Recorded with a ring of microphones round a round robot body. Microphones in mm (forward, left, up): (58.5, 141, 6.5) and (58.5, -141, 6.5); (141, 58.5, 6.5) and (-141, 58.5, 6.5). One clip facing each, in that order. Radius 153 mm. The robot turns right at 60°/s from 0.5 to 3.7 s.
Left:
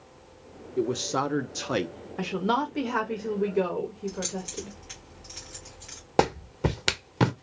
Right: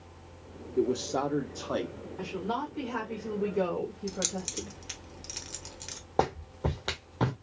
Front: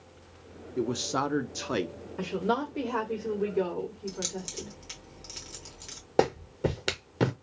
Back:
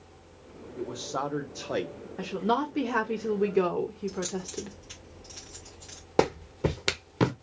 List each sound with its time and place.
0.8 s a man speaking: 5° left, 0.6 m; by 1.9 s 75° left, 0.6 m
2.2 s a woman speaking: 80° left, 0.9 m; by 4.8 s 170° left, 0.9 m
4.1 s keys jangling: 60° right, 1.1 m
6.2 s a clap: 105° left, 0.6 m